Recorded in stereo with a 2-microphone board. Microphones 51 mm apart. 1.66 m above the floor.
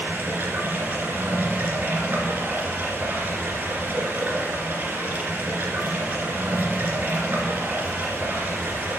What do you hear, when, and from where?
0.0 s running water: 50° right (ahead or behind), 2 m